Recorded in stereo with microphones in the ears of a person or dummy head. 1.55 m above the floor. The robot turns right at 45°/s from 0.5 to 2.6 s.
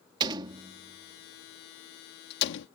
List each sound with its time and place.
0.2 s a door slam: 25° right (ahead or behind); by 2.7 s 70° left (ahead or behind)